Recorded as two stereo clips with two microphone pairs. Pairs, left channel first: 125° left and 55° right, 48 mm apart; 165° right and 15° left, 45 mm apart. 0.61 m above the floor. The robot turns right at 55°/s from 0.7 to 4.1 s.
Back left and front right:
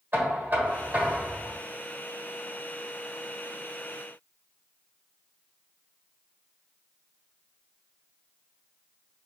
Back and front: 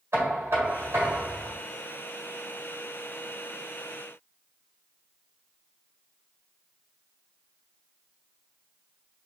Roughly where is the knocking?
Ahead.